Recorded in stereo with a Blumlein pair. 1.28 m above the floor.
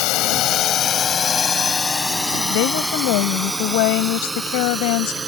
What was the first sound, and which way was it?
A drone, 40° left.